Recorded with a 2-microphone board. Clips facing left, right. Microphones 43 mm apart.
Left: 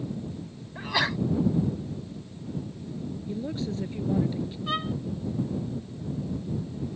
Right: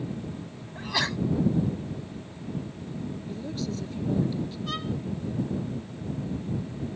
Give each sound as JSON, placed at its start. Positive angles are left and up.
{"t": 0.8, "sound": "a sneeze", "side_deg": 10}
{"t": 3.3, "sound": "a woman speaking", "side_deg": 25}
{"t": 4.7, "sound": "a violin", "side_deg": 25}